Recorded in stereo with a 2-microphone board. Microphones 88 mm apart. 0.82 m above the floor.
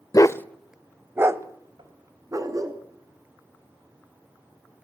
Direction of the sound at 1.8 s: 85° right.